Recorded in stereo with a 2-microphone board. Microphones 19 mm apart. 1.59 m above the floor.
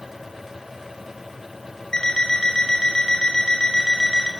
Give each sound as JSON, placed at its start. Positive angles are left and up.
{"t": 1.9, "sound": "an alarm clock", "side_deg": 35, "distance_m": 5.0}